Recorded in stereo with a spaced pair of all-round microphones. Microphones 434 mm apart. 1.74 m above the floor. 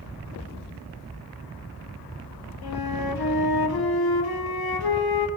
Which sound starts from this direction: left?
A flute, at 2.6 s.